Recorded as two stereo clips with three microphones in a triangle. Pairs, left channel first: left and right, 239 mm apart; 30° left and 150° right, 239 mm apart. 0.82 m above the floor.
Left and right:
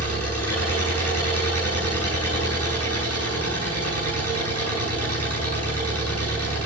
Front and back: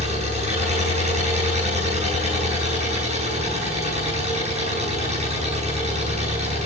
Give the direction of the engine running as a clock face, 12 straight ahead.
3 o'clock.